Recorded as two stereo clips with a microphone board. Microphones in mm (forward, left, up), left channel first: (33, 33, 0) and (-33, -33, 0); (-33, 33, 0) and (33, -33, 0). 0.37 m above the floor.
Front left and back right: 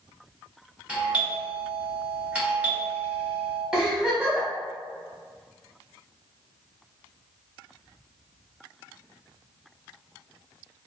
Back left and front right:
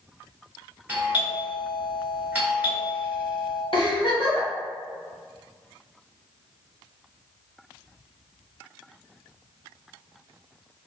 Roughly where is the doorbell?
Right.